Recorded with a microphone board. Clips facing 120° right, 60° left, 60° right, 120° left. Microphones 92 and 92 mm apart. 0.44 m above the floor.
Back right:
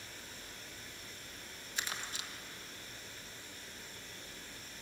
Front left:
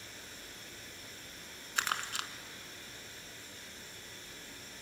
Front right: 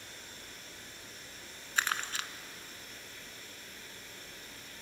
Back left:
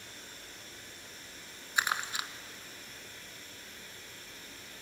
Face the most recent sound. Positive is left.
turn(degrees=45)